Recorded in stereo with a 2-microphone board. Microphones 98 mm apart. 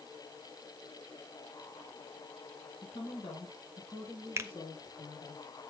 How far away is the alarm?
I don't hear an alarm.